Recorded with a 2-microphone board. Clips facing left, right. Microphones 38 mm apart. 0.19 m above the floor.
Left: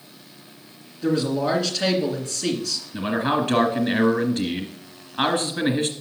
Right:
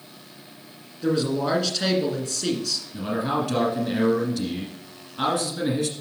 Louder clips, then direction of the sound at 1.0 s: Left 1 dB; centre (ahead or behind).